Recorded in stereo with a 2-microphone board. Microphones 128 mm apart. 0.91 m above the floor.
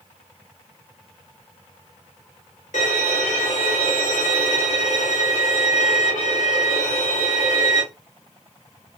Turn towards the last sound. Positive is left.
turn(degrees=75)  # may be behind; listen again after turning